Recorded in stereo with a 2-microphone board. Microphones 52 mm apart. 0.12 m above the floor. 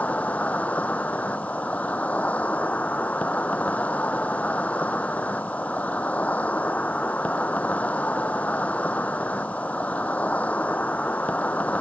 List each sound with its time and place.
0.0 s an insect: 30° left (ahead or behind)